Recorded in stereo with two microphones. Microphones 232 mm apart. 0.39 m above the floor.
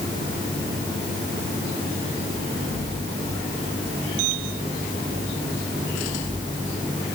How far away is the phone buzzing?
I don't hear a phone buzzing.